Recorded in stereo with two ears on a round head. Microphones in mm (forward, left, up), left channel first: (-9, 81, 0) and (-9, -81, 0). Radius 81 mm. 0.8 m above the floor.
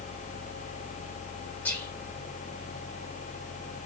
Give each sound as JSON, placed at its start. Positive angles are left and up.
{"t": 1.6, "sound": "whispering", "side_deg": 10, "distance_m": 1.5}